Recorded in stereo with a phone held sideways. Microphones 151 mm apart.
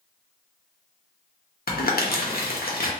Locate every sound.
1.7 s crumpling: 85° left, 0.6 m